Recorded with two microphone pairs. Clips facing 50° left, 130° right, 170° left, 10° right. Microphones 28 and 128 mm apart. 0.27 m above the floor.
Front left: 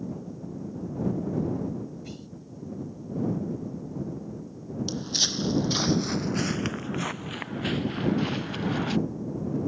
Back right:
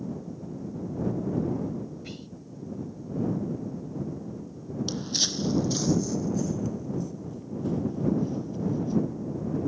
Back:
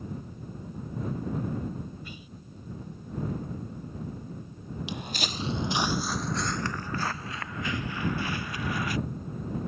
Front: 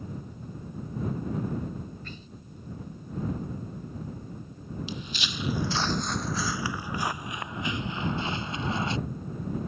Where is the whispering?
145° right.